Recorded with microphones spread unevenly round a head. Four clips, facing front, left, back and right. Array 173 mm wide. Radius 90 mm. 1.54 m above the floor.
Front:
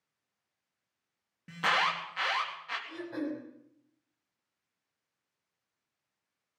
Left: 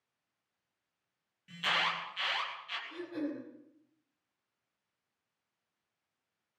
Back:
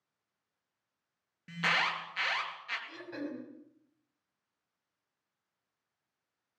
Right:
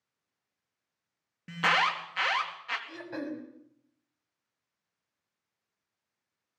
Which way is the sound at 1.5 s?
80° right.